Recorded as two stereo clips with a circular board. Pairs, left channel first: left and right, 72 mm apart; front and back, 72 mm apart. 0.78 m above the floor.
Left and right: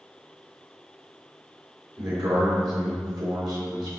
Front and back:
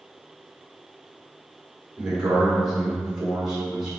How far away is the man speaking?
About 2.5 m.